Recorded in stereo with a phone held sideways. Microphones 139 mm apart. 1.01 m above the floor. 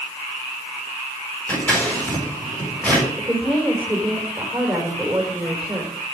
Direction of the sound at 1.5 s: 10° left (ahead or behind).